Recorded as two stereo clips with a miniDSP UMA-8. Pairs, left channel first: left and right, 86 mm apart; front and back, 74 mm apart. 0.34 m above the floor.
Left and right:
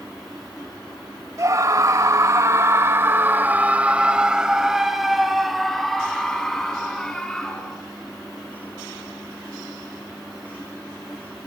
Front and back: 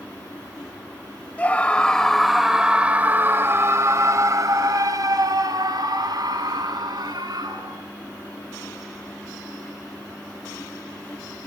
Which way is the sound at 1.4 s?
60° right.